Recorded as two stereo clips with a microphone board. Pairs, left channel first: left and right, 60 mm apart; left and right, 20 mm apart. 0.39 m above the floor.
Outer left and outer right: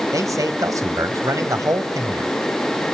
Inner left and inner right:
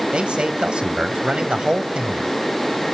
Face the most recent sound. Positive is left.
turn(degrees=-60)  # may be behind; listen again after turning